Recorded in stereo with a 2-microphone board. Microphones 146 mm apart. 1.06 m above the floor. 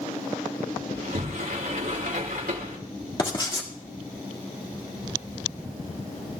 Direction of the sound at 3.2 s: 35° left (ahead or behind).